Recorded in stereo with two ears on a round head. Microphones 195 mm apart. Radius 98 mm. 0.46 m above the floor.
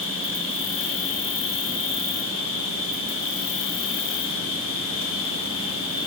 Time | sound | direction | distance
0.0 | an insect | 60° left (ahead or behind) | 1.3 m